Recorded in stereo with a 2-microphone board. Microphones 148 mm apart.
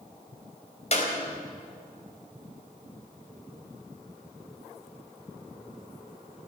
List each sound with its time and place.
0.9 s a clap: 50° left (ahead or behind), 4 m